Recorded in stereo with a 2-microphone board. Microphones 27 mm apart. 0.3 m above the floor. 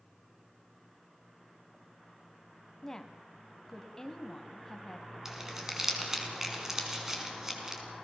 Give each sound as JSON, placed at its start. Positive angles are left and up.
{"t": 2.8, "sound": "a woman speaking", "side_deg": 15, "distance_m": 2.0}
{"t": 5.2, "sound": "crumpling", "side_deg": -15, "distance_m": 3.5}